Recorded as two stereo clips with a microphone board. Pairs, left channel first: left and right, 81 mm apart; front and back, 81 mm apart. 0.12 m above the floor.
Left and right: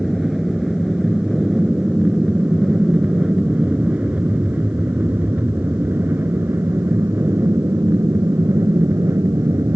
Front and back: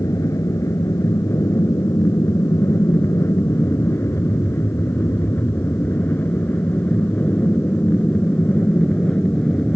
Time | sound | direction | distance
0.0 | an aircraft | 5° right | ?